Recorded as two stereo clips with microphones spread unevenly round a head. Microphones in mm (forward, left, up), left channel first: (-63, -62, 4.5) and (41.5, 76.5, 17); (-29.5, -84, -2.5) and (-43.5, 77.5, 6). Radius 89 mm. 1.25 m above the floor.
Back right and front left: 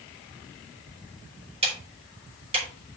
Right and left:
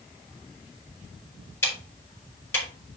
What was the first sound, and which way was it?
Ticking, 5° right.